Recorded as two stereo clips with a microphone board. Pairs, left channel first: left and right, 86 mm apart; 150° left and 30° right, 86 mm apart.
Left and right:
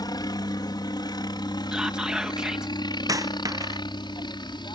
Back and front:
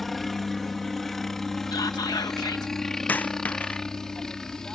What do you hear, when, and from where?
0.0 s a helicopter: 65° left; by 4.8 s 70° left
1.7 s whispering: 170° right
3.1 s a dropped coin: 140° right